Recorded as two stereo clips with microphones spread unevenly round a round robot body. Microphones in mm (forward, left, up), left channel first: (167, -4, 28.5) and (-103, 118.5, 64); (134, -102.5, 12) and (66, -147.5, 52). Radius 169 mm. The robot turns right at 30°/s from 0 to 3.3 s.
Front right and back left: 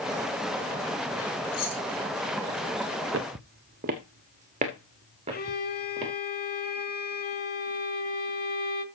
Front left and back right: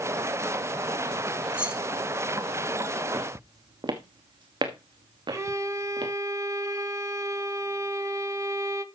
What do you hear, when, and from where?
1.5 s keys jangling: 70° right, 3 m; by 1.8 s 60° right, 3 m
3.1 s footsteps: 170° right, 0.6 m; by 6.1 s 130° right, 3.5 m
5.3 s a violin: 80° right, 1.5 m